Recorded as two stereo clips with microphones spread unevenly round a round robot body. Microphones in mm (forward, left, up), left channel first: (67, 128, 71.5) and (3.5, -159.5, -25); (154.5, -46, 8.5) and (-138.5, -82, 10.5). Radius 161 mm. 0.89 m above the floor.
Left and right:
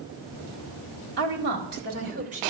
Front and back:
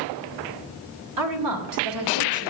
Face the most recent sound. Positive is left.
turn(degrees=-170)